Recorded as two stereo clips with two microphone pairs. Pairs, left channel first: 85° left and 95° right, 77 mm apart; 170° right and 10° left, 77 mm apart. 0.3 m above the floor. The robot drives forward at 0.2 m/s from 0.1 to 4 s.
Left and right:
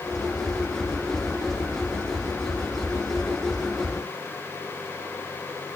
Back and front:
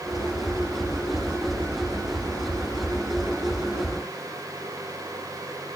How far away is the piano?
I don't hear a piano.